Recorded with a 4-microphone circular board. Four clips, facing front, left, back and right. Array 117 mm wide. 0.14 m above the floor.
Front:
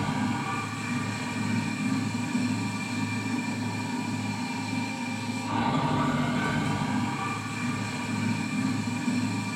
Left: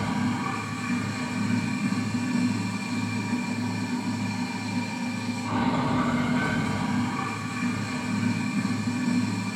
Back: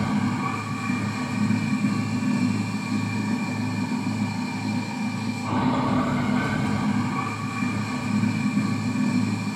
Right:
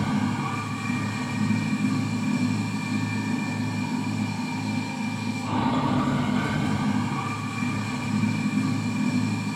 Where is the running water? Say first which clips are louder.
Right 1 dB, back 4 dB; 160° right, 2.5 m.